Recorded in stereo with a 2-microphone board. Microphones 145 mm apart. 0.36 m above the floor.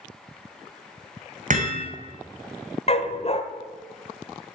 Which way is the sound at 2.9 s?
45° left (ahead or behind).